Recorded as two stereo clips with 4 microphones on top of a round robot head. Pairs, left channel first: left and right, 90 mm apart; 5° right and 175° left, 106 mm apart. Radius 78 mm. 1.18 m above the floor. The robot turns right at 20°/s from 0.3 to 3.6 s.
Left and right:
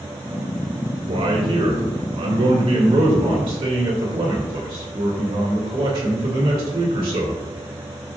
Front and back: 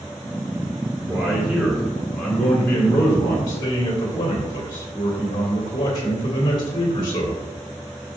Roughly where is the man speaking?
Right.